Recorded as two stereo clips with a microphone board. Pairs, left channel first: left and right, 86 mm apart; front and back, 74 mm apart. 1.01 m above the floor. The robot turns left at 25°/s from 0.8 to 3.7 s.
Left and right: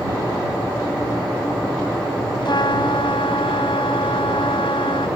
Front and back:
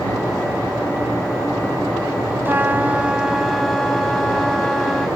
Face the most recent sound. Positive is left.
turn(degrees=90)